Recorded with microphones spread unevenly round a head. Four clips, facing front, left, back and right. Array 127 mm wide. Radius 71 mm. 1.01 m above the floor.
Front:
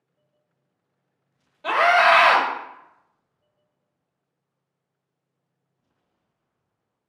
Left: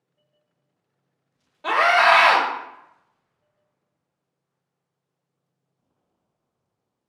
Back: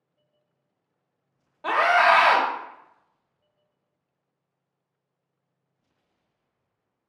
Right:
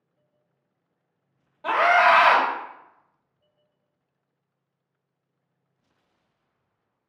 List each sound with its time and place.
1.6 s a scream: 170° left, 1.5 m